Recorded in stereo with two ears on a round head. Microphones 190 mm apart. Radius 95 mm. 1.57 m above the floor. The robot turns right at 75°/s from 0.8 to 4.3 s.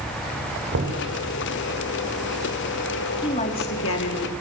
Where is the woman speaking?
20° left, 4 m; by 4.3 s 100° left, 4 m.